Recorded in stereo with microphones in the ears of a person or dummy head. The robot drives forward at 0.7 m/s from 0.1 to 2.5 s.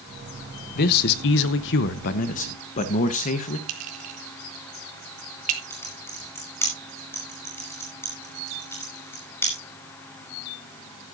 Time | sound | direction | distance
0.8 | a man speaking | 50° left (ahead or behind) | 1.0 m
3.7 | a clink | 45° right (ahead or behind) | 2.5 m
5.7 | typing on a keyboard | 15° left (ahead or behind) | 5.5 m